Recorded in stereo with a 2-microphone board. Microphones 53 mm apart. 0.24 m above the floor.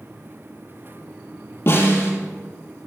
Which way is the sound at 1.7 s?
55° left (ahead or behind).